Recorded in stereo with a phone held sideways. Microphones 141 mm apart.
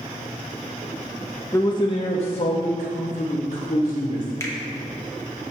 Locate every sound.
1.5 s a man speaking: 20° left (ahead or behind), 0.6 m; by 4.3 s 50° left (ahead or behind), 2.5 m
4.4 s a finger snap: 20° left (ahead or behind), 1.2 m